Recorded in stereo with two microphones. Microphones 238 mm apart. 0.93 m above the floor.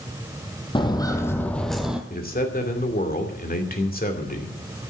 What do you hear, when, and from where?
0.8 s footsteps: 20° left (ahead or behind), 1.5 m; by 2.0 s 5° right (ahead or behind), 1.5 m
2.1 s a man speaking: 40° left (ahead or behind), 2.5 m